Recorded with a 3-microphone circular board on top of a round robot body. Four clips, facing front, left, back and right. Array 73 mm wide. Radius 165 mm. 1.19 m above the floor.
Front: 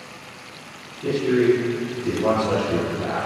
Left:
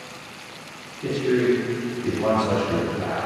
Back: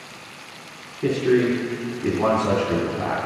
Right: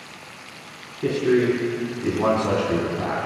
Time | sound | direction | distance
1.0 | a man speaking | 140° right | 3 m